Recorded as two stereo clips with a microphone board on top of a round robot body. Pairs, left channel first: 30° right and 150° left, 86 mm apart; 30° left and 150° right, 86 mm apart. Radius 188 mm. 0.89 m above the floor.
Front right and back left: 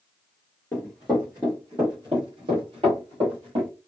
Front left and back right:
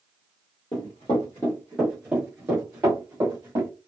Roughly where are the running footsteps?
Ahead left.